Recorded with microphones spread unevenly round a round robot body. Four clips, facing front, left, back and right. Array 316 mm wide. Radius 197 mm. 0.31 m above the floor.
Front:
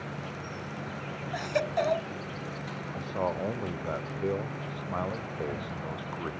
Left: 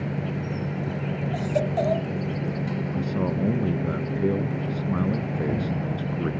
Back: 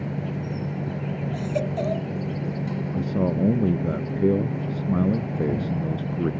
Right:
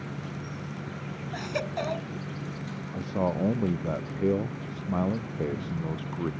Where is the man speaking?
175° left.